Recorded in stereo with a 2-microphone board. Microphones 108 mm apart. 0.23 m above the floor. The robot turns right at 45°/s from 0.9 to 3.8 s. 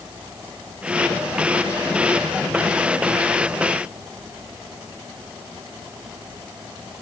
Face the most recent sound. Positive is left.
No sound to turn to.